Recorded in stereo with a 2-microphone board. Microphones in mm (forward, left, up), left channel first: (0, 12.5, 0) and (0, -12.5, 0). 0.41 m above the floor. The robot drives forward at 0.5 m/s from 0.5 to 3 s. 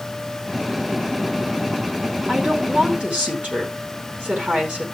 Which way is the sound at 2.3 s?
70° right (ahead or behind).